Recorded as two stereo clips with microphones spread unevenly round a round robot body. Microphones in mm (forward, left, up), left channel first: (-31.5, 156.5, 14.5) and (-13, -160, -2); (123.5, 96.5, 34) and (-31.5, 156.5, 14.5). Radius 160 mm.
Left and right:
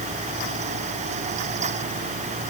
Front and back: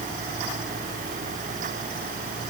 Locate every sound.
Only background noise.